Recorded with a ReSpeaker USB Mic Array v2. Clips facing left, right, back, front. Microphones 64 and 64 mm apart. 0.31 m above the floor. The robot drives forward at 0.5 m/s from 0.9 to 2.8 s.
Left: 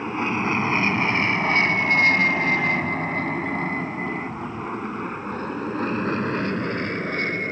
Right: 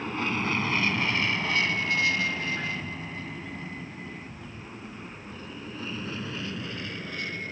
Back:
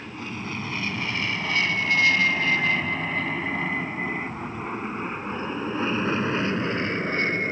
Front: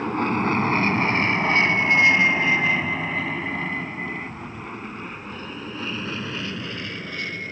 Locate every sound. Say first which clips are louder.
0.0 s an aircraft: left 5 dB, front 12 dB; 25° left; by 7.5 s 130° left